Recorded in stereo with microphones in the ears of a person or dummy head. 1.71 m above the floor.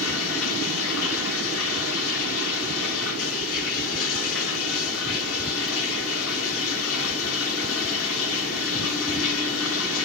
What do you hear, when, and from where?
0.0 s running water: 60° left (ahead or behind), 4.5 m